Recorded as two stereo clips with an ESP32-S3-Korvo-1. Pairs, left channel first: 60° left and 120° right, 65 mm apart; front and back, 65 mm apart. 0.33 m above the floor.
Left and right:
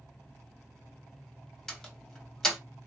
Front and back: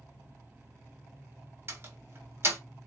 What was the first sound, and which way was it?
A door slam, 140° left.